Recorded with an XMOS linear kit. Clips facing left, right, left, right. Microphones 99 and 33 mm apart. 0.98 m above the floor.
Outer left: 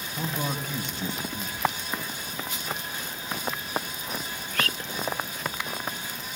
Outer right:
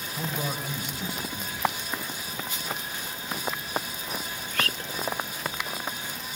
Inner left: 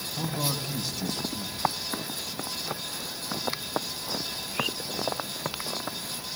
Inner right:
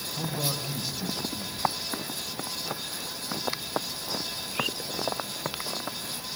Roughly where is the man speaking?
Centre.